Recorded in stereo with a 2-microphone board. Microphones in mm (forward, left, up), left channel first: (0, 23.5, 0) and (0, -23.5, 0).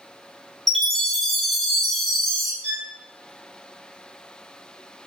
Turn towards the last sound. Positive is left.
turn(degrees=20)  # may be behind; listen again after turning